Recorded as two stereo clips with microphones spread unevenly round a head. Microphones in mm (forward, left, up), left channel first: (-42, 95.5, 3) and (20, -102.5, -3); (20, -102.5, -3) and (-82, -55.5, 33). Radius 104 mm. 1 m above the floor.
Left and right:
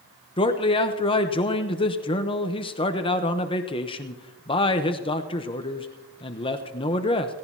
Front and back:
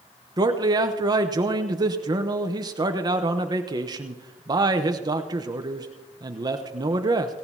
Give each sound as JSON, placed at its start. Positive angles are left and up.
{"t": 0.4, "sound": "a man speaking", "azimuth_deg": 105, "distance_m": 0.8}